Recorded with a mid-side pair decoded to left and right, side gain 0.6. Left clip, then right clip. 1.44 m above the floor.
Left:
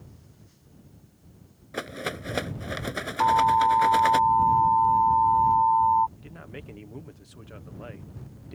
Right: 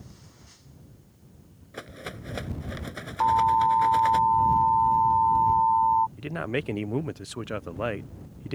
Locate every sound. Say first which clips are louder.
1.7 s a rattle: left 7 dB; 35° left
3.2 s an alarm: left 1 dB; 5° left
6.2 s a man speaking: right 13 dB; 60° right